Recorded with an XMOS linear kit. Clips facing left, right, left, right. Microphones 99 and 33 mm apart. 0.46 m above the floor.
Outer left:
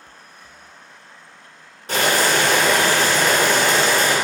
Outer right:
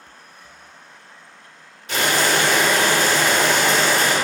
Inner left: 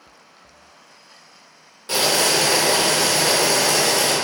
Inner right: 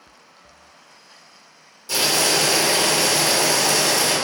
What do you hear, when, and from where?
1.9 s boiling: 40° left (ahead or behind), 0.8 m